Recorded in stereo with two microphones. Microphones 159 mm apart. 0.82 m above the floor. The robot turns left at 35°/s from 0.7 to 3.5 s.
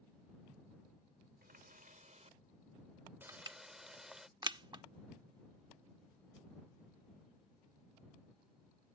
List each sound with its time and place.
1.4 s a running tap: 105° right; by 4.3 s 175° right
3.3 s crushing: 20° right (ahead or behind); by 4.8 s 30° right (ahead or behind)